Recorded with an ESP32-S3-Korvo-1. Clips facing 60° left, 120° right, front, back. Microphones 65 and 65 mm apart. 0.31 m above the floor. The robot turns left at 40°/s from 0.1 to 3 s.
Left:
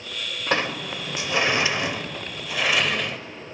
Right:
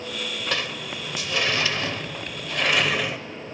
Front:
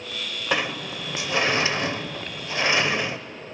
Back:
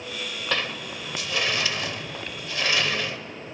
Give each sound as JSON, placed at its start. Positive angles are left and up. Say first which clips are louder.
{"t": 0.5, "sound": "a sliding door", "louder": "left 8 dB, front 4 dB", "azimuth_deg": 60, "distance_m": 0.6}